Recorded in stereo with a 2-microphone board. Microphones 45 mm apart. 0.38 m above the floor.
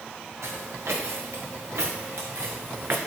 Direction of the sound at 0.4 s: 75° right (ahead or behind).